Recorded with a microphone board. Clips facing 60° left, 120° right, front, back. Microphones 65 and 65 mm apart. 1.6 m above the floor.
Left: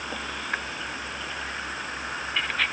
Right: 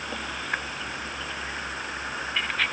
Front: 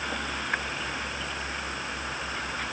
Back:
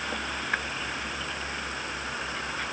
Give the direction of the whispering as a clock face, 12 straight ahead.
I don't hear whispering.